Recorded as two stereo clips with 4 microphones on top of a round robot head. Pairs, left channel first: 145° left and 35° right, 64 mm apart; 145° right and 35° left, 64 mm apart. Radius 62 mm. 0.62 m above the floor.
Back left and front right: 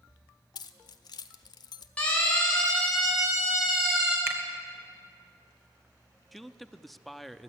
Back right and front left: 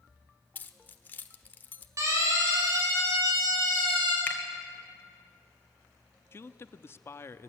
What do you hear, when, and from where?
0.6 s keys jangling: 150° left, 1.3 m
2.0 s a siren: 75° left, 7.5 m; by 4.2 s 50° left, 8 m
4.3 s a finger snap: 85° right, 2.5 m
6.3 s a man speaking: 125° right, 1.0 m